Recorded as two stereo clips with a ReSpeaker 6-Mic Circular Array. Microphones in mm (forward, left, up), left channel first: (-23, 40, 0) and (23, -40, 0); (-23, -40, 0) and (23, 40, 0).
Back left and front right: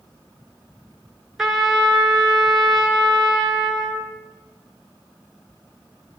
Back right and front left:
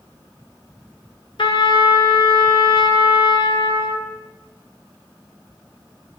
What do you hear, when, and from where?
1.4 s a trumpet: 145° right, 1.5 m